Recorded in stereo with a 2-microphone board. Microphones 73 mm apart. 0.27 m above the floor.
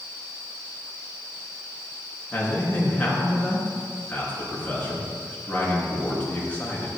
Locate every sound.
2.3 s a man speaking: 20° left (ahead or behind), 4 m